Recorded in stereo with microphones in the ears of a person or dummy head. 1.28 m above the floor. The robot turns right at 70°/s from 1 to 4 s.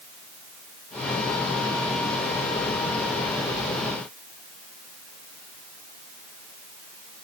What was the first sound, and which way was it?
Only background noise.